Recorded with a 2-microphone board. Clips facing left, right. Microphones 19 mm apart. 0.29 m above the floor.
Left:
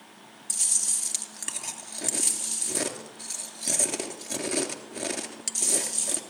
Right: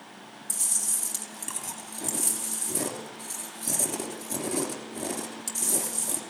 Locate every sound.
0.5 s chewing: 35° left (ahead or behind), 3 m